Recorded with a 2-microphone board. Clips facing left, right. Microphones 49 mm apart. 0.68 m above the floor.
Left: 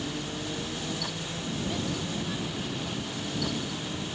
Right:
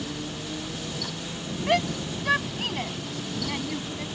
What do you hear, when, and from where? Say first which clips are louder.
1.7 s a shout: right 11 dB; 75° right (ahead or behind); by 4.0 s 80° right